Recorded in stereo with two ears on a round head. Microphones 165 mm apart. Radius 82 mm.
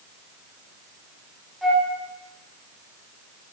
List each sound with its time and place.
1.6 s a flute: centre (ahead or behind), 1.7 m